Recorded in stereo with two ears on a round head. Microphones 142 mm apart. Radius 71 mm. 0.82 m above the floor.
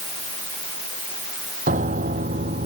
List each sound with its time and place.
1.7 s a piano: 50° right (ahead or behind)